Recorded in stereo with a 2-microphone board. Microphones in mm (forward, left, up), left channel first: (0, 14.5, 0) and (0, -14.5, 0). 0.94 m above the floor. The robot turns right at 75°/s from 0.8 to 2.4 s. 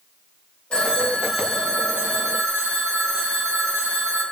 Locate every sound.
0.7 s a phone ringing: 150° left, 0.7 m; by 4.2 s 90° right, 0.7 m